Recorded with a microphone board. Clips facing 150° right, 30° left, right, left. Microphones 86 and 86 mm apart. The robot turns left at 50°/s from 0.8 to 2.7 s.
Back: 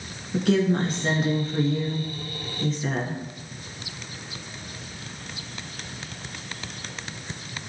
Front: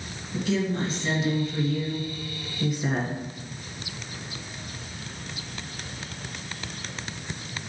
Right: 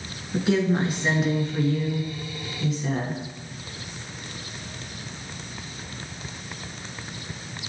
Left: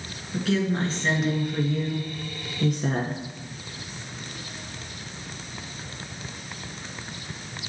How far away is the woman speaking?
About 3 m.